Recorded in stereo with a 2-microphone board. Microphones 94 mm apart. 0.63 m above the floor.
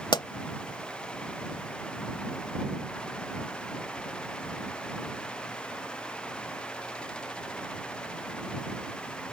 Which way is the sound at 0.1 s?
55° left (ahead or behind).